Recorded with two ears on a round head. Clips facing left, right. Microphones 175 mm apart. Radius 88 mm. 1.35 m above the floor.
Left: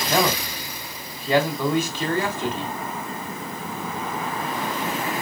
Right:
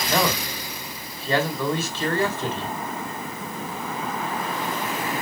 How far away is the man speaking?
About 4 m.